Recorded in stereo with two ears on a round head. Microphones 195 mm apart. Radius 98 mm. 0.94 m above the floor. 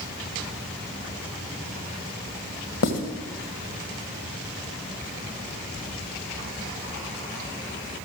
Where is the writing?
65° left (ahead or behind), 2 m.